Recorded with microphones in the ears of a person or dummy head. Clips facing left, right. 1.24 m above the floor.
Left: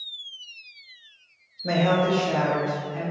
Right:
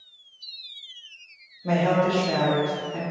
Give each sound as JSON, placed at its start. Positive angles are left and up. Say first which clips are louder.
{"t": 1.6, "sound": "a woman speaking", "louder": "even", "side_deg": 20, "distance_m": 0.6}